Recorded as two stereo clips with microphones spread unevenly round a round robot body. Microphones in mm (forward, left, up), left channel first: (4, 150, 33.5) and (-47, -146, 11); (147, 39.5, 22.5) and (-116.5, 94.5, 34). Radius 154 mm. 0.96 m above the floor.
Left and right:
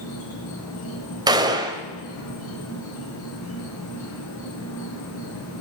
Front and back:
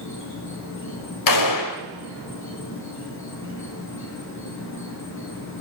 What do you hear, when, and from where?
0.0 s an insect: 30° left, 5 m
1.3 s a gunshot: 20° right, 1.5 m